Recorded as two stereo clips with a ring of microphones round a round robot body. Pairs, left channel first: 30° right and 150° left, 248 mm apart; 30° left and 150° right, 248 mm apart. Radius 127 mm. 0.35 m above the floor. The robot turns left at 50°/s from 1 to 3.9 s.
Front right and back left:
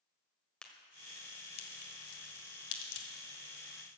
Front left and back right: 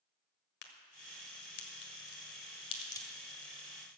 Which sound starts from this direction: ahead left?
A crack, at 0.6 s.